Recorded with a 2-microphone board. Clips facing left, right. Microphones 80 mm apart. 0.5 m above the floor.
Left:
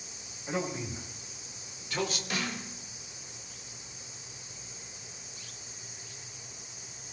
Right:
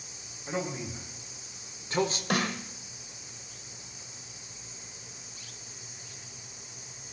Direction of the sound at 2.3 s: 65° right (ahead or behind).